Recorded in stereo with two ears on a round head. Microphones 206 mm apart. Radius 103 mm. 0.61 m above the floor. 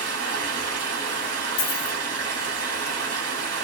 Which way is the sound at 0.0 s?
75° right (ahead or behind).